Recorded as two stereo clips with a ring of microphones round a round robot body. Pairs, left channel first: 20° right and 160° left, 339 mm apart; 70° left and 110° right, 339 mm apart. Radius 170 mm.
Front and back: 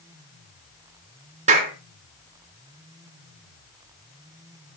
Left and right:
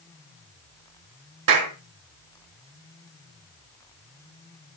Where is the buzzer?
I don't hear a buzzer.